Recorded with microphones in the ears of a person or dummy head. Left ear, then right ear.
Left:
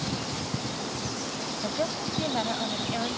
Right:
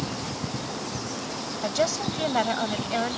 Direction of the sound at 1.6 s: 80° right.